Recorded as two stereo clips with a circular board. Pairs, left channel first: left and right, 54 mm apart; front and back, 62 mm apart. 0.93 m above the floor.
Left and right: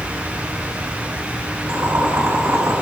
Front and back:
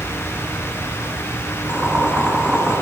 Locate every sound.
1.7 s boiling: 110° right, 1.9 m